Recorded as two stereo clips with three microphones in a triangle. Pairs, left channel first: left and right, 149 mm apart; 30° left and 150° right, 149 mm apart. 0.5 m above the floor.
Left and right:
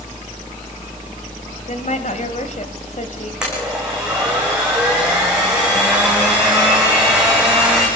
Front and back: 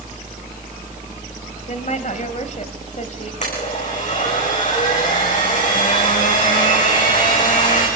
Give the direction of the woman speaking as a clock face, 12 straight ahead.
10 o'clock.